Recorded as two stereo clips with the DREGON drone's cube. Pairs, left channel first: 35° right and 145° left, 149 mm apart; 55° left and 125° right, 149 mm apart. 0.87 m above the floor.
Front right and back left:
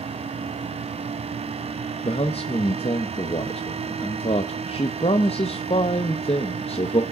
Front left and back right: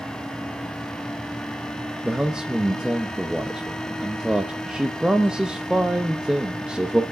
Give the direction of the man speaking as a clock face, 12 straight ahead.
1 o'clock.